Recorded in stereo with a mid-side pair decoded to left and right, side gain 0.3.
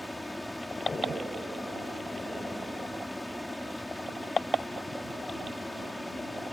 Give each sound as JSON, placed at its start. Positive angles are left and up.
{"t": 0.0, "sound": "a fan", "azimuth_deg": 15}